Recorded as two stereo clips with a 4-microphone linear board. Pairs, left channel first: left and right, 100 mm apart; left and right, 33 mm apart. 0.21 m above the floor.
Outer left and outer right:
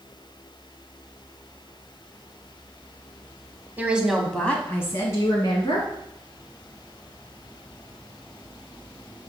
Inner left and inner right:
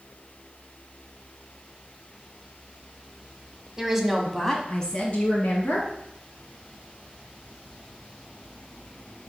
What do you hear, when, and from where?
3.8 s a woman speaking: 20° right (ahead or behind), 1.0 m; by 5.9 s 45° left (ahead or behind), 2 m